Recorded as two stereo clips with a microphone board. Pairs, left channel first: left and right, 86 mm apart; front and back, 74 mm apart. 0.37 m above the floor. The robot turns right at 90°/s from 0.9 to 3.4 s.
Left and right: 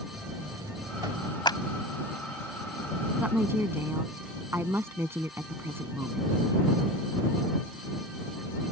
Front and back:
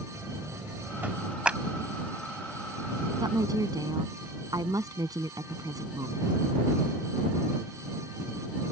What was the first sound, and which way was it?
A buzzer, 130° right.